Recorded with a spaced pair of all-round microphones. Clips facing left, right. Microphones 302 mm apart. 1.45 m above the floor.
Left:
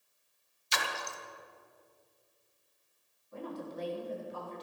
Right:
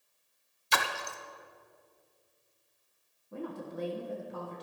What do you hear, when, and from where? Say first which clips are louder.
0.7 s a splash: right 3 dB; 60° right (ahead or behind), 0.6 m
3.3 s a woman speaking: right 2 dB; 55° right (ahead or behind), 1.4 m